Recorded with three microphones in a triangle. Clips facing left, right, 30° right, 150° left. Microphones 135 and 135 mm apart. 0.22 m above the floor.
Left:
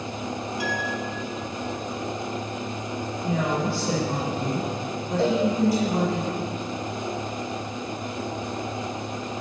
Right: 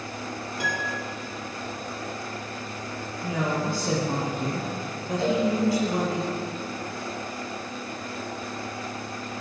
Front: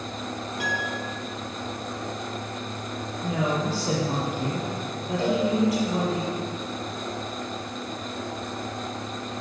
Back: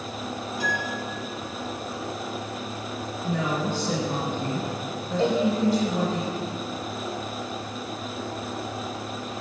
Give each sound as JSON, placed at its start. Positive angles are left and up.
{"t": 0.6, "sound": "a piano", "azimuth_deg": -50, "distance_m": 3.5}
{"t": 3.2, "sound": "a woman speaking", "azimuth_deg": -25, "distance_m": 5.5}
{"t": 5.2, "sound": "a cowbell", "azimuth_deg": 105, "distance_m": 3.0}